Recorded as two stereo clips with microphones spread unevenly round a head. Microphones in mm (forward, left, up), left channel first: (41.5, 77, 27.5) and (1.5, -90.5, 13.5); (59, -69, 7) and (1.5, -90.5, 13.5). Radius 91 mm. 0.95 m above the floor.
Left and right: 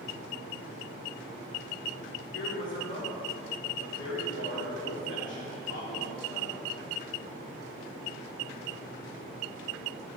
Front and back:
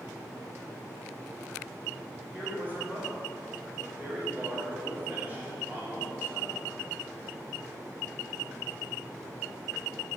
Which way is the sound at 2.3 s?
100° left.